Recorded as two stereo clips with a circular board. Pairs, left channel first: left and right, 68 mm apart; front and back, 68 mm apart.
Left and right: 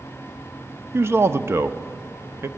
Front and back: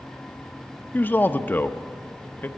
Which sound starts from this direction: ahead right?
A man speaking, at 0.9 s.